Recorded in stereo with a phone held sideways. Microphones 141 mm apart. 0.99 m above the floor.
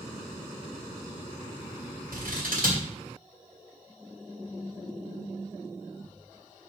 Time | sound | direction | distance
2.1 | scissors | 85° right | 3 m